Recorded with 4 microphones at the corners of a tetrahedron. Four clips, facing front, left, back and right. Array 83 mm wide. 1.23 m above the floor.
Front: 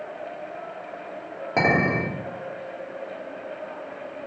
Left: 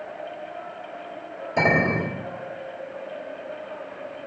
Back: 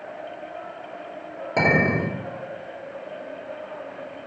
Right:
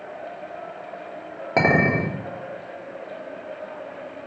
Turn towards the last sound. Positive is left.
turn(degrees=-80)